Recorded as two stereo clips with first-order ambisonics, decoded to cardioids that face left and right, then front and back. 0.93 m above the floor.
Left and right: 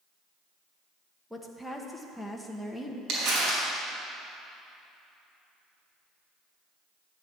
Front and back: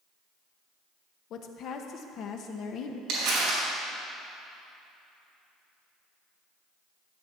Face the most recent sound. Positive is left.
turn(degrees=-135)